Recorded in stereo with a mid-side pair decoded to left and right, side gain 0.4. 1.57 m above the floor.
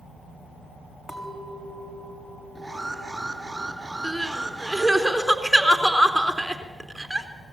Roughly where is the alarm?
Ahead.